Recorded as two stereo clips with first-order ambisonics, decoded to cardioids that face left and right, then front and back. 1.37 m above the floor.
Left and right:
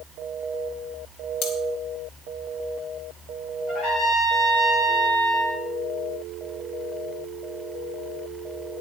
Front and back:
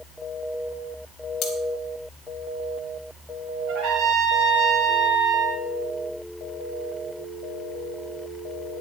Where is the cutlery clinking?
55° left, 3 m.